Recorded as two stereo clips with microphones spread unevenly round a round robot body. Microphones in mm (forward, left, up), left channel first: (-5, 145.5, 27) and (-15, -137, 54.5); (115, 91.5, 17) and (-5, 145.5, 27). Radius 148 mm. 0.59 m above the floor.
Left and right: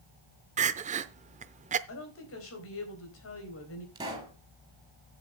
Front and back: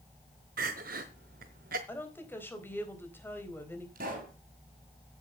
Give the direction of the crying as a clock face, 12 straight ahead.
5 o'clock.